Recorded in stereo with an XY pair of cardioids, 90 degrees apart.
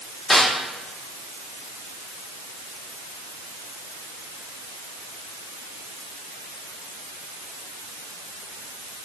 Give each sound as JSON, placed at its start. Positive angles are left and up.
{"t": 0.3, "sound": "a snare drum", "azimuth_deg": 15, "distance_m": 3.5}